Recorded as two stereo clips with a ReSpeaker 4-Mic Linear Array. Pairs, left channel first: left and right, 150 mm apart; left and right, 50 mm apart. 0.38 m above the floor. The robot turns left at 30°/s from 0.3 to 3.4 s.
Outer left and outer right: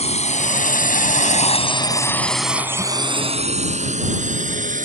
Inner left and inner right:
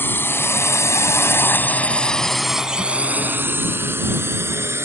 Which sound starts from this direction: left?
A drone, at 0.0 s.